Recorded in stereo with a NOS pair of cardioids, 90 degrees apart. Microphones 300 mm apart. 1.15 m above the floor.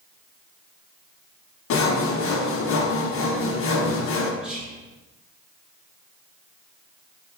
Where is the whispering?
5° right, 1.2 m.